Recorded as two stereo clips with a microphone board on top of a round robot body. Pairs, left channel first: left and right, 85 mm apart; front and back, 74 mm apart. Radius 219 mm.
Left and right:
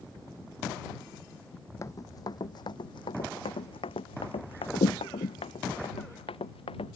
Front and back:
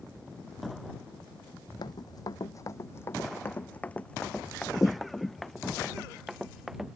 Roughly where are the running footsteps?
Ahead left.